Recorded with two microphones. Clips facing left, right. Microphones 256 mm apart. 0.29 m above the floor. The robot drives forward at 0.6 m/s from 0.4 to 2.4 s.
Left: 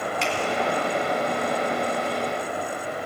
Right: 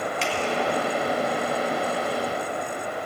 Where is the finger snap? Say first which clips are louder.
Left 1 dB; 35° right (ahead or behind), 2.5 m.